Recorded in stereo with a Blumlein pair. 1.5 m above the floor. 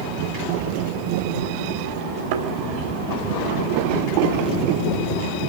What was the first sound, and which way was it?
A thud, 50° right.